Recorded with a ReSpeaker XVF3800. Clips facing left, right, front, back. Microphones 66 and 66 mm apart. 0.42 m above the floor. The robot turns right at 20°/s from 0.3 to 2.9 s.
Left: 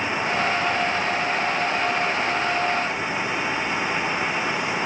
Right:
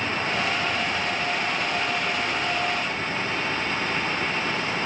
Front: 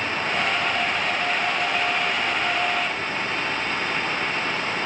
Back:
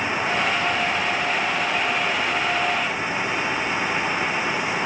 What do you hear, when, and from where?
Only background noise.